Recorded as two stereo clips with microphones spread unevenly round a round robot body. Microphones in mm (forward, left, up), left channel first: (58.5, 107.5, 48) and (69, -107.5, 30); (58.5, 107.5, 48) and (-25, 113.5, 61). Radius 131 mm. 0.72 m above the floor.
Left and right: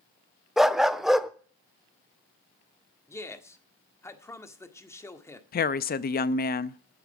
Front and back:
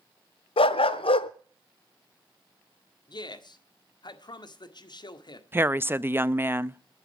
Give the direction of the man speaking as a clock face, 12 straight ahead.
12 o'clock.